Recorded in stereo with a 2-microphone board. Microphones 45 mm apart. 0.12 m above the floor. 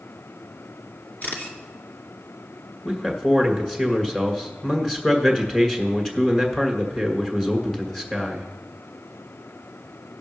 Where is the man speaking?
5° left (ahead or behind), 1.8 m.